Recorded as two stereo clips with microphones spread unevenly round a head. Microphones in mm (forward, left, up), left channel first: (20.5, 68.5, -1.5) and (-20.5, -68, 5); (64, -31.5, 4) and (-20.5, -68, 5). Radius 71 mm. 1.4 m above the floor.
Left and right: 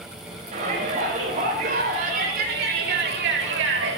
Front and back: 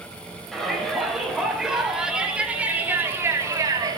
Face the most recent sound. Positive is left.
turn(degrees=-115)